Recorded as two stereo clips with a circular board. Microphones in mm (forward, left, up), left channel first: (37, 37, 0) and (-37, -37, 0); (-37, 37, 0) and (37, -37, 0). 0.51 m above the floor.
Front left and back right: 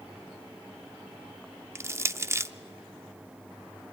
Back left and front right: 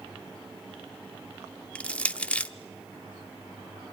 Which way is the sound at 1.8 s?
160° right.